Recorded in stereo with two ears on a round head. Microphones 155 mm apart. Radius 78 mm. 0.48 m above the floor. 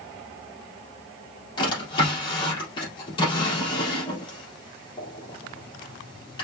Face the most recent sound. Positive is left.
turn(degrees=25)  # may be behind; listen again after turning